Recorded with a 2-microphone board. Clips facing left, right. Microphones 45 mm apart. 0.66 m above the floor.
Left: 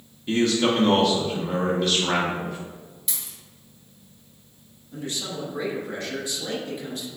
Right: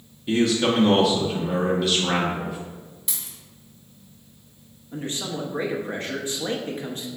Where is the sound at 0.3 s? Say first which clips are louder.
Even; centre (ahead or behind), 0.6 m.